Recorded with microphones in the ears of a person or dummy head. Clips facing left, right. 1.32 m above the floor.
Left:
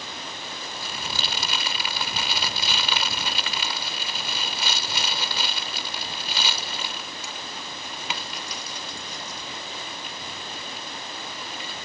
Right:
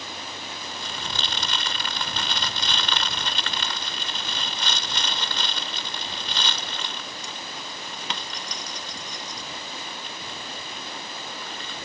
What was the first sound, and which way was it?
Crumpling, 10° left (ahead or behind).